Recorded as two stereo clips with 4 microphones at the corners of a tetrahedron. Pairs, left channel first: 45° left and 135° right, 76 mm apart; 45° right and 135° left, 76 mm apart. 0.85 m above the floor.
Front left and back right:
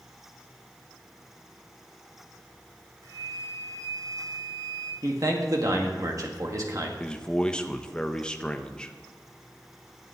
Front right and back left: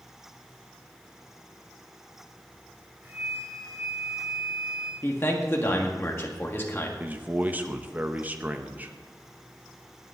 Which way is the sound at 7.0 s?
105° left.